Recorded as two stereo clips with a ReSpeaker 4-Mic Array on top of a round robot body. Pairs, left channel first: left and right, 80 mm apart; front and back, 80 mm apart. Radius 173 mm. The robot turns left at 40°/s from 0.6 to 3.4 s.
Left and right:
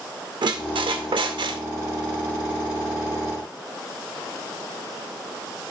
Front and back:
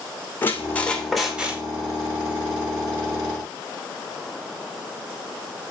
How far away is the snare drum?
No snare drum in this recording.